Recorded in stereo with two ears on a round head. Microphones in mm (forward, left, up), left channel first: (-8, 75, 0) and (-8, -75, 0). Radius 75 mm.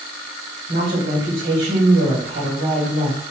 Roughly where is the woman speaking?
Right.